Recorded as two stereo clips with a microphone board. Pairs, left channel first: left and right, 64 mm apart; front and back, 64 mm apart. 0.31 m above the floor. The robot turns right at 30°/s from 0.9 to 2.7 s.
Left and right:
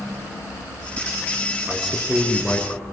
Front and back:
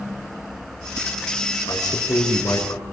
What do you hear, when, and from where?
1.7 s a man speaking: 15° right, 5 m; by 2.8 s 20° left, 5 m